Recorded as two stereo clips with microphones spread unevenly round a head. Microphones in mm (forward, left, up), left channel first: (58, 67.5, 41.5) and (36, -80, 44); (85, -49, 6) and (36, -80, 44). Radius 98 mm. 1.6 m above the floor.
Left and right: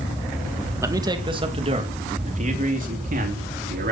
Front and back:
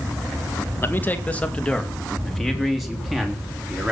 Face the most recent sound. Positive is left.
turn(degrees=-75)